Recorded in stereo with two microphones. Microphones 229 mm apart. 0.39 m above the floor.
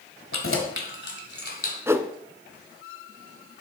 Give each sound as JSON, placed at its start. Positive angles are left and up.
{"t": 0.3, "sound": "keys jangling", "side_deg": 65, "distance_m": 1.6}
{"t": 1.9, "sound": "a whoosh", "side_deg": -10, "distance_m": 0.6}